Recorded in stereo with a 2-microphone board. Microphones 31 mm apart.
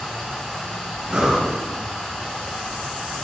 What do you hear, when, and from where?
0.0 s running water: 15° left (ahead or behind), 2.5 m
1.1 s breathing: 35° right (ahead or behind), 2.5 m